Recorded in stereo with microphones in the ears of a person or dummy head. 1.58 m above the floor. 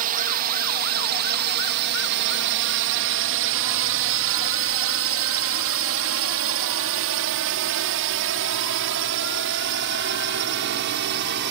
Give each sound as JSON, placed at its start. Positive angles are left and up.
{"t": 0.0, "sound": "a drone", "side_deg": -50}